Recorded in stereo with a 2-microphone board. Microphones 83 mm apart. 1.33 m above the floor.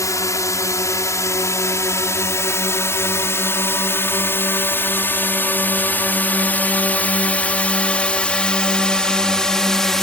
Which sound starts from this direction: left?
A drone, at 0.0 s.